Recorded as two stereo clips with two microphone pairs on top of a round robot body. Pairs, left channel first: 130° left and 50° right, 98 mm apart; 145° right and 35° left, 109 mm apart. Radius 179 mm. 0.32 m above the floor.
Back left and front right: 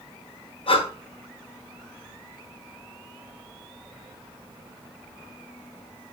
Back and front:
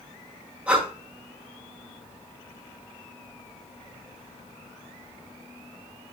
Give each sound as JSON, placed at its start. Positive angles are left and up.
{"t": 0.7, "sound": "breathing", "azimuth_deg": 115, "distance_m": 2.0}